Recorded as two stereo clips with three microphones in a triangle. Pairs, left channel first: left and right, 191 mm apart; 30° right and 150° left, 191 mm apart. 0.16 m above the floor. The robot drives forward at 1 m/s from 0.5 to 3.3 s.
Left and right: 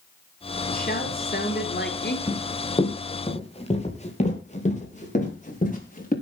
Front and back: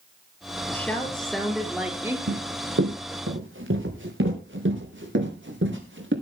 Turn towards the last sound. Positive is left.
turn(degrees=140)